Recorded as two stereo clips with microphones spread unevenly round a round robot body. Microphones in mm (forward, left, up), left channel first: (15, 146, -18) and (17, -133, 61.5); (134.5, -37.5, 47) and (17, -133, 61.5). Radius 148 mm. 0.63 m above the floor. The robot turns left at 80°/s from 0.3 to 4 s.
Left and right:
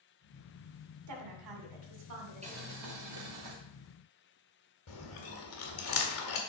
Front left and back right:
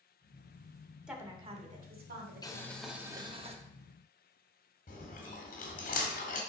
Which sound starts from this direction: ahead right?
A woman speaking, at 1.1 s.